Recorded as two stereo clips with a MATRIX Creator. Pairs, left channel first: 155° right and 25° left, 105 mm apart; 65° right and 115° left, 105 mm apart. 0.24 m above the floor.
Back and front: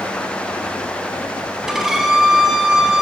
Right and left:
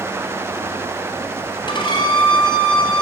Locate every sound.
1.7 s a violin: 60° right, 2 m